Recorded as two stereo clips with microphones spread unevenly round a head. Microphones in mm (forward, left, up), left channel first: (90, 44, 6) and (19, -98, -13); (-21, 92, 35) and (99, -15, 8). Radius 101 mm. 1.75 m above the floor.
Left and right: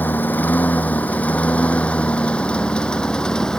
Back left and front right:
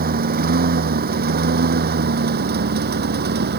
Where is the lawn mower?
15° right; by 3.6 s 20° right.